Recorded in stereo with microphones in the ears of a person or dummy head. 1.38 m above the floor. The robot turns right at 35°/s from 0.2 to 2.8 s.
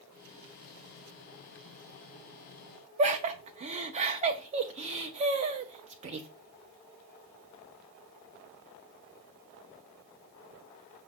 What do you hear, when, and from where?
3.0 s laughter: 35° right (ahead or behind), 0.7 m